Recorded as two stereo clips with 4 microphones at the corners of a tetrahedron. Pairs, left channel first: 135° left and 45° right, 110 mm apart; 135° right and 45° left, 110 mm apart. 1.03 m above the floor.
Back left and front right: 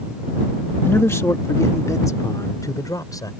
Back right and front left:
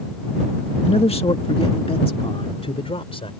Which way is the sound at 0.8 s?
155° right.